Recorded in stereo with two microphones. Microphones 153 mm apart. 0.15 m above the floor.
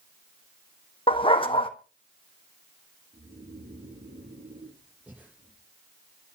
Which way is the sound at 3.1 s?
55° right (ahead or behind).